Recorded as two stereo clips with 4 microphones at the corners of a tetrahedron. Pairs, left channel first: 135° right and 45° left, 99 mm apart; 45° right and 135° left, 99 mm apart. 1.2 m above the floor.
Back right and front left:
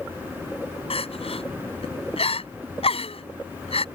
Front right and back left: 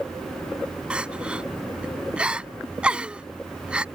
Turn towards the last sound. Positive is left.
turn(degrees=-145)